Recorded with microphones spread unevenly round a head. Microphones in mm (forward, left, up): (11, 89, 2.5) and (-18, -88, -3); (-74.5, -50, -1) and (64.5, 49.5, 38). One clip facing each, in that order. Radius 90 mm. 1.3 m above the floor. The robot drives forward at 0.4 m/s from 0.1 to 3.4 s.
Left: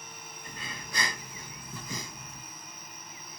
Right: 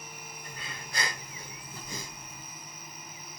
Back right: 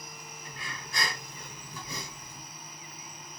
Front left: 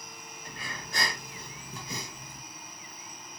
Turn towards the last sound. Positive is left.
turn(degrees=120)